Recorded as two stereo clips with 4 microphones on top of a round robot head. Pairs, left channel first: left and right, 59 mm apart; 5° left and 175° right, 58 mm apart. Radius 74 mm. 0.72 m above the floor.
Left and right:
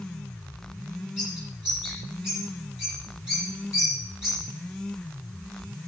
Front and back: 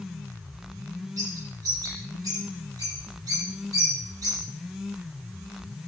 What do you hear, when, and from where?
1.2 s a bird: 170° right, 7 m